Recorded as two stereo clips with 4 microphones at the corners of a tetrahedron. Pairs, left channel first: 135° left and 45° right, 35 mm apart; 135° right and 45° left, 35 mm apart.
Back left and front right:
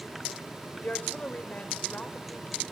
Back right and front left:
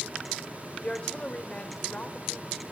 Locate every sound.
0.8 s a woman speaking: 175° left, 1.5 m